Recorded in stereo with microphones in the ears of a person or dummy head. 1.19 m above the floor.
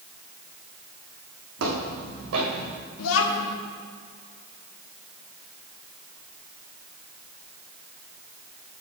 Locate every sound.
1.6 s footsteps: 65° right (ahead or behind), 3.5 m
3.0 s a child speaking: 75° left (ahead or behind), 1.2 m